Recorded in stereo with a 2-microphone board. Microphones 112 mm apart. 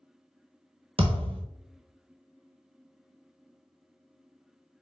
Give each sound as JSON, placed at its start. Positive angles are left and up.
{"t": 1.0, "sound": "a thud", "side_deg": -55, "distance_m": 0.5}